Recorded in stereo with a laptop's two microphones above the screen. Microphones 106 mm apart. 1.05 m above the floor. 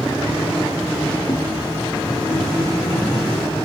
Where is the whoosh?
30° left (ahead or behind), 1.6 m.